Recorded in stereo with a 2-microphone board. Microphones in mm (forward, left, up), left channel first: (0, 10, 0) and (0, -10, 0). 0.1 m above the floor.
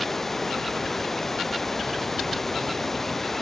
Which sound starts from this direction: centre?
Running water, at 0.0 s.